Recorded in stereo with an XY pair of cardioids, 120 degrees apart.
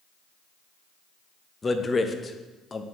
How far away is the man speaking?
About 0.8 m.